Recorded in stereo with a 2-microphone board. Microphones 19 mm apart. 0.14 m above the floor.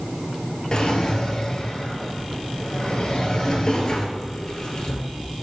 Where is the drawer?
45° left (ahead or behind), 1.1 m.